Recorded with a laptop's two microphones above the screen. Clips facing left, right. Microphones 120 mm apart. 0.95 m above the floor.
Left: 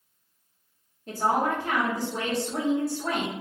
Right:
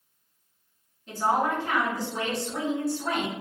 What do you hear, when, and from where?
1.1 s a woman speaking: 45° left (ahead or behind), 1.1 m